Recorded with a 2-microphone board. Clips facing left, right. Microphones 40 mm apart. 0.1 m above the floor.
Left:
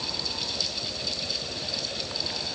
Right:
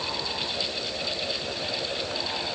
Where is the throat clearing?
No throat clearing in this recording.